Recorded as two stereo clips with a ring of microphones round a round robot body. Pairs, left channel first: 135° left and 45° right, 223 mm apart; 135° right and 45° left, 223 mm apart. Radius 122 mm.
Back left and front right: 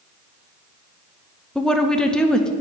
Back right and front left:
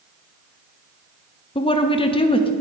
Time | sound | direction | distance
1.6 | a woman speaking | 145° right | 0.6 m